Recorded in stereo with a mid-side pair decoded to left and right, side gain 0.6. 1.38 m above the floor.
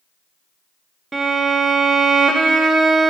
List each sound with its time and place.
1.1 s a violin: 15° right, 0.7 m